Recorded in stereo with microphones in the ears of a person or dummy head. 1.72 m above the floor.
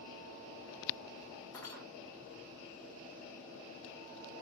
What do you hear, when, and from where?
1.5 s cutlery clinking: 25° left (ahead or behind), 2 m